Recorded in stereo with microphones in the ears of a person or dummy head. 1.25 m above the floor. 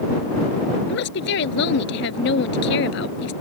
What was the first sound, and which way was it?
A woman speaking, 70° left (ahead or behind).